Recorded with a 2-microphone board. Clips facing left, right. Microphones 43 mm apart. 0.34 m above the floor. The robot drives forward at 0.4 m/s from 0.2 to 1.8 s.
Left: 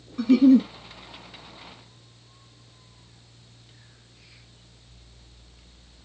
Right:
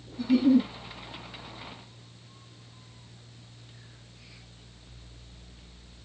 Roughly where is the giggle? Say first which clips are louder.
Left 5 dB; left.